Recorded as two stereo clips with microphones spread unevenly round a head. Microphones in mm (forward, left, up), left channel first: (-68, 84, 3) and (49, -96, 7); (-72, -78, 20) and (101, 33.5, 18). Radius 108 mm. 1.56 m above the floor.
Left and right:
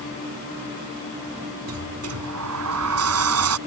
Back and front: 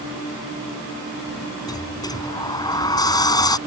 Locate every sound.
1.7 s a sliding door: 75° right